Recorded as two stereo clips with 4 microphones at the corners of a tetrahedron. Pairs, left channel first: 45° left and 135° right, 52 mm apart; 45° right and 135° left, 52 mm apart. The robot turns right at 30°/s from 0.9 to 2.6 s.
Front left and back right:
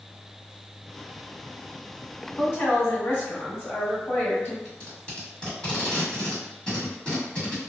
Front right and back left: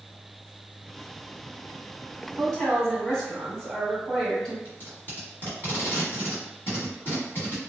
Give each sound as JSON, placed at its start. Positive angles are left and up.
{"t": 2.4, "sound": "a woman speaking", "azimuth_deg": 15, "distance_m": 1.7}
{"t": 4.7, "sound": "tape being pulled", "azimuth_deg": -20, "distance_m": 1.4}